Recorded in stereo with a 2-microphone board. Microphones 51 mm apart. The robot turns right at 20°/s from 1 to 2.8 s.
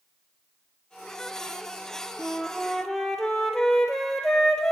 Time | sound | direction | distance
2.2 | a flute | 5° right (ahead or behind) | 1.6 m